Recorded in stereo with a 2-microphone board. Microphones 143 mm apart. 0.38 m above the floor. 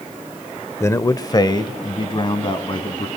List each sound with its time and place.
0.8 s a man speaking: 20° left (ahead or behind), 0.9 m; by 3.1 s 35° left (ahead or behind), 3 m